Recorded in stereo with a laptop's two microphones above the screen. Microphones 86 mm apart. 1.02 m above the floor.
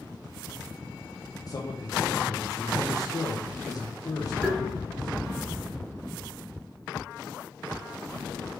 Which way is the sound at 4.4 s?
Centre (ahead or behind).